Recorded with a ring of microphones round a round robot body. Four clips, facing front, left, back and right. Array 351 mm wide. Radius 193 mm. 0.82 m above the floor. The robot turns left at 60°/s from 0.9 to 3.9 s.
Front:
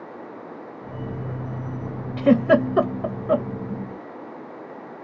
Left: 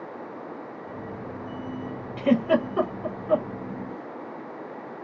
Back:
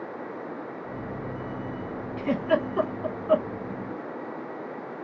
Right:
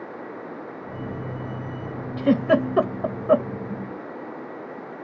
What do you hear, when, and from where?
2.2 s a giggle: 5° right, 1.0 m; by 3.5 s 80° right, 1.0 m